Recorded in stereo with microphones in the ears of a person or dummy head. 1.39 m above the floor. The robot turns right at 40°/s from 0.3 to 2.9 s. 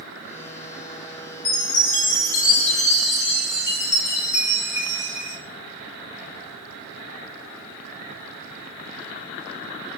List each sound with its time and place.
1.4 s a chime: 85° left, 4 m; by 5.4 s 145° left, 4 m